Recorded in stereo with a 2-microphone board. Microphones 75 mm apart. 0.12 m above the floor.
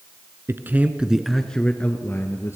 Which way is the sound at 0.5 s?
30° right (ahead or behind).